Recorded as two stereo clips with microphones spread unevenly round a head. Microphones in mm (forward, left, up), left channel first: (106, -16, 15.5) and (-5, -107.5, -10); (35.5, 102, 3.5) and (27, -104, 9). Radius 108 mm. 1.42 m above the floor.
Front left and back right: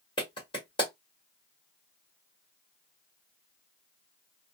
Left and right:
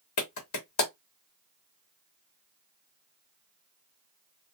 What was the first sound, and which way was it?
A clap, 110° left.